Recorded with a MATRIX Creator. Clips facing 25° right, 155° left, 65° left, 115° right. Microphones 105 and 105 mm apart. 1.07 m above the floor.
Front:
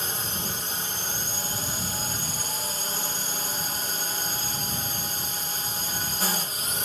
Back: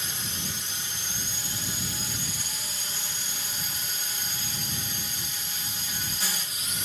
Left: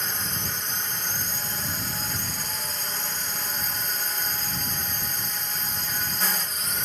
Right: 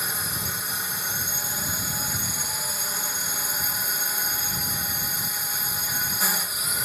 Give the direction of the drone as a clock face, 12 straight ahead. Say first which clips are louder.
Front 4 dB, even; 1 o'clock.